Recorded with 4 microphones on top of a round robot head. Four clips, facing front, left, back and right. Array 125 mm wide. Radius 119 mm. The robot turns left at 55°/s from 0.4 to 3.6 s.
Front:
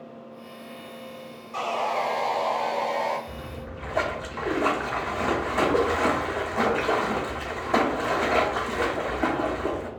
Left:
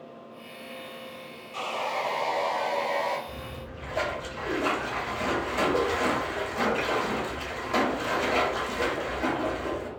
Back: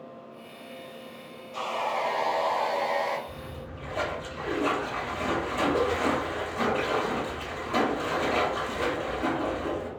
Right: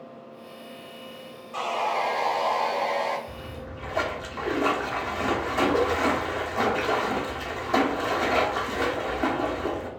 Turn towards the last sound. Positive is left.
turn(degrees=-25)